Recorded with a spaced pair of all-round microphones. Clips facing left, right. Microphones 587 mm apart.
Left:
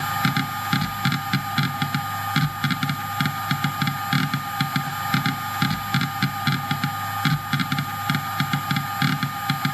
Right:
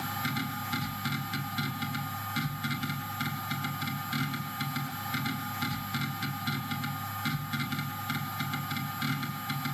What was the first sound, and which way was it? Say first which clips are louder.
A machine running: left 9 dB; 85° left.